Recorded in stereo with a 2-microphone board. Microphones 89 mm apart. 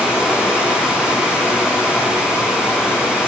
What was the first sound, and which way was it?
Running water, 30° left (ahead or behind).